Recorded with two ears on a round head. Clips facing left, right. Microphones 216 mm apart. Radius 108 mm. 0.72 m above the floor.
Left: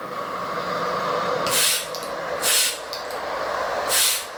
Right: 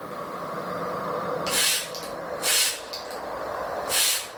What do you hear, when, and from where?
1.5 s a hiss: 20° left (ahead or behind), 0.7 m